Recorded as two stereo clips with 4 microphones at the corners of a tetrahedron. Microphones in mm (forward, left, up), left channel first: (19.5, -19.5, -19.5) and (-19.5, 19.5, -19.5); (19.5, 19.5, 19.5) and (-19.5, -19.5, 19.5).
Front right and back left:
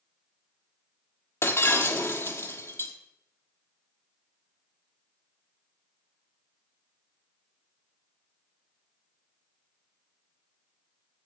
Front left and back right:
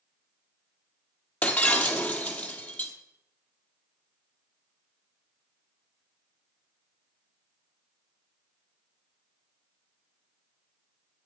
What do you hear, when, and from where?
1.4 s breaking glass: 15° right, 1.2 m